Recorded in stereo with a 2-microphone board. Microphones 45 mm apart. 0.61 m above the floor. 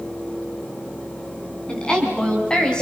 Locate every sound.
1.7 s a woman speaking: 20° left (ahead or behind), 6.5 m